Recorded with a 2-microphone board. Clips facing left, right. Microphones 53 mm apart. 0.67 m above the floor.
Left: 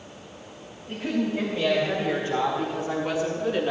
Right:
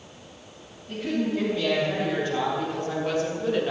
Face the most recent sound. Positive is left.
turn(degrees=5)  # may be behind; listen again after turning